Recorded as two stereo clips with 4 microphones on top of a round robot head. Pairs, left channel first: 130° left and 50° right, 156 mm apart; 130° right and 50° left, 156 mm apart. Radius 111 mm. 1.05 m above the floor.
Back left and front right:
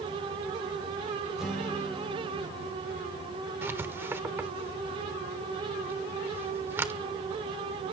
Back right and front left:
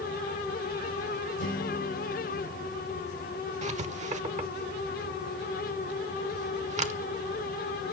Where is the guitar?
135° right, 4.5 m.